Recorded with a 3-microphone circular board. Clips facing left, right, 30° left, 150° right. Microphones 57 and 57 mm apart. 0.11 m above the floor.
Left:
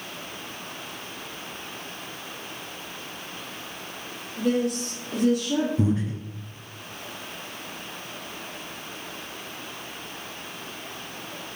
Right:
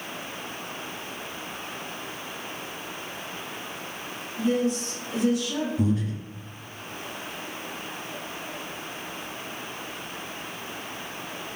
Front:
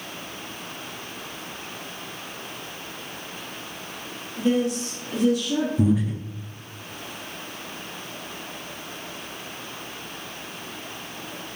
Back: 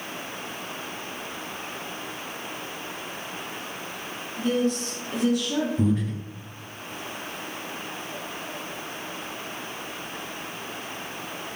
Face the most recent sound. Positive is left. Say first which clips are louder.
# left 1 dB, front 2 dB
turn(degrees=110)